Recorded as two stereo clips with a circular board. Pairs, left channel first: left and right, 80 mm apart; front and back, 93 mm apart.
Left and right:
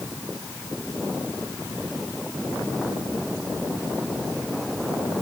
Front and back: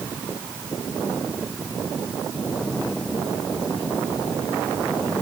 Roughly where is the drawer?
No drawer in this recording.